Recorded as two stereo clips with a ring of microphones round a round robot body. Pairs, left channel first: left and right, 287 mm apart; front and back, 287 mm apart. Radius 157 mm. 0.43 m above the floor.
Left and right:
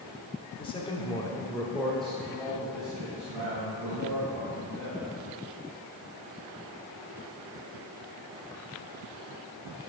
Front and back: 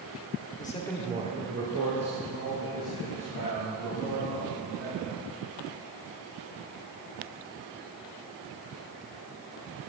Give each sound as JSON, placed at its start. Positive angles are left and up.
{"t": 0.6, "sound": "a man speaking", "azimuth_deg": 30, "distance_m": 0.9}